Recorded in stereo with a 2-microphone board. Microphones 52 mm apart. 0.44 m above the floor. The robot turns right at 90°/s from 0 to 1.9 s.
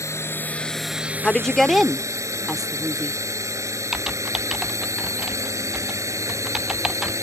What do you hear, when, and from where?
0.0 s a drone: 70° left (ahead or behind); by 7.2 s 80° right
1.2 s a woman speaking: 15° left (ahead or behind); by 3.2 s 5° right (ahead or behind)
3.9 s typing on a keyboard: 10° right (ahead or behind)